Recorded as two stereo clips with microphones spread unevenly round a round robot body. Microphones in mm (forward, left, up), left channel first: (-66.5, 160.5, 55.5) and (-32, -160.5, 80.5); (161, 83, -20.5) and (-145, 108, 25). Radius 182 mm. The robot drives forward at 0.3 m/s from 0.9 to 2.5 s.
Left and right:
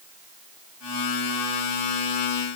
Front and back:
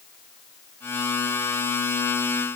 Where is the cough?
No cough in this recording.